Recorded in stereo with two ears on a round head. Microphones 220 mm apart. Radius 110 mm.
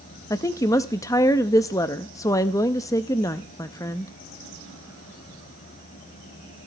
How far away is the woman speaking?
About 0.6 m.